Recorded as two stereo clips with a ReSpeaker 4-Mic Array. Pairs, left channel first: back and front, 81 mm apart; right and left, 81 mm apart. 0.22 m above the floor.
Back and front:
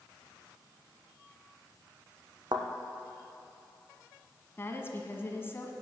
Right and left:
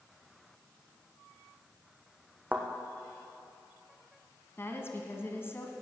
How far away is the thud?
About 1.8 m.